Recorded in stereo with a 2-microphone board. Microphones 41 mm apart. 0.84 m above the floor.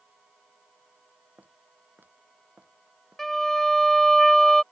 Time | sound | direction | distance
1.4 | footsteps | 55° right (ahead or behind) | ?
3.2 | a violin | 5° left (ahead or behind) | ?